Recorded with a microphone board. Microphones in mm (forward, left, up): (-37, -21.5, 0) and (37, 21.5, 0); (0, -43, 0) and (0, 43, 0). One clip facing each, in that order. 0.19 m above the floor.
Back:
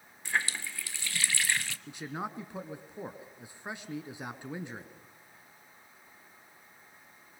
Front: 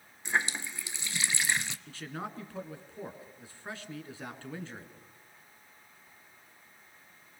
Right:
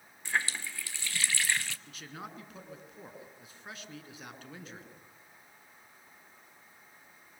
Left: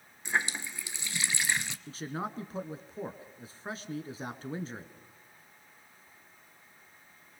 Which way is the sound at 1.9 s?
140° left.